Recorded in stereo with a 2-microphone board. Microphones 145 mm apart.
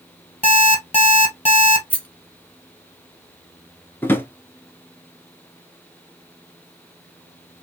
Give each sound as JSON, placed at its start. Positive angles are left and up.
{"t": 0.4, "sound": "an alarm clock", "side_deg": 45, "distance_m": 1.9}
{"t": 1.9, "sound": "a rattle", "side_deg": 10, "distance_m": 1.8}
{"t": 4.0, "sound": "a drawer", "side_deg": 15, "distance_m": 0.7}